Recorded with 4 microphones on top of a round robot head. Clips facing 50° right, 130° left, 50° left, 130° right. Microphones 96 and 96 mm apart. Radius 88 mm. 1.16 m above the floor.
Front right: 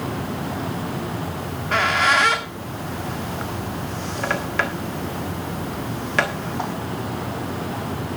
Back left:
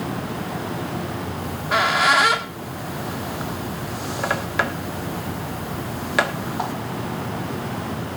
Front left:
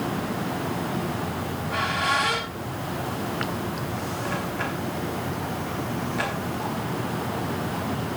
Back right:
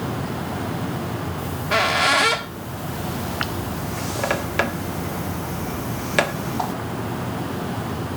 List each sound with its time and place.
1.4 s a squeak: 150° right, 1.4 m